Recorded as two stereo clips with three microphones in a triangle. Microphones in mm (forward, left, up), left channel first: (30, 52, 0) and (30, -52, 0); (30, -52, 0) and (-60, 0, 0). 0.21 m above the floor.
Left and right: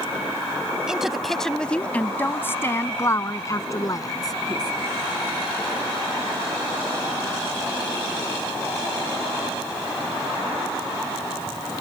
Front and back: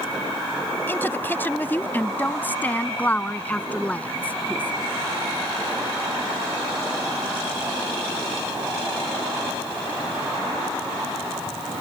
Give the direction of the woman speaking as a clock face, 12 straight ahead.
1 o'clock.